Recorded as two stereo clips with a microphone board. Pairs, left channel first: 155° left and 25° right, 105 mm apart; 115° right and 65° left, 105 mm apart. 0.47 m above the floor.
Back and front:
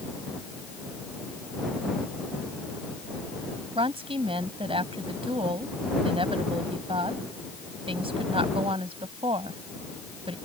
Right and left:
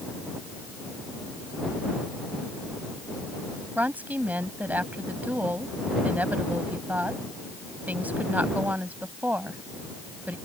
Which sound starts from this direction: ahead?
A woman speaking, at 3.8 s.